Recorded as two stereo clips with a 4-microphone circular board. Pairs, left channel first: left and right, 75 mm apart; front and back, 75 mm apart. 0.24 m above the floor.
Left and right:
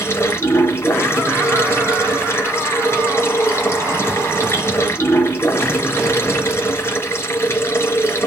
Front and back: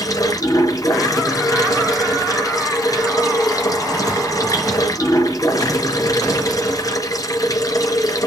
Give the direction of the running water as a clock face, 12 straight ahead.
11 o'clock.